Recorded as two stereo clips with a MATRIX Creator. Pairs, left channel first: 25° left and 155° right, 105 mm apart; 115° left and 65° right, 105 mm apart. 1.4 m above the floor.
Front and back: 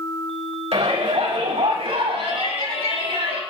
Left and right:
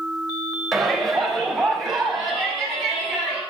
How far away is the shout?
About 3 m.